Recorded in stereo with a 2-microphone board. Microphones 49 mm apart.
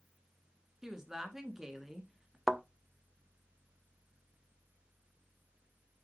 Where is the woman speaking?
10° right (ahead or behind), 2.5 m.